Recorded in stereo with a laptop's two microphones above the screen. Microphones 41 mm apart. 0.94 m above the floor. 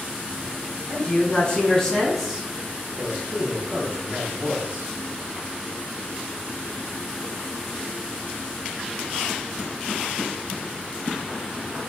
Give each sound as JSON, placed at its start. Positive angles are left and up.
{"t": 0.9, "sound": "a man speaking", "side_deg": 40, "distance_m": 1.0}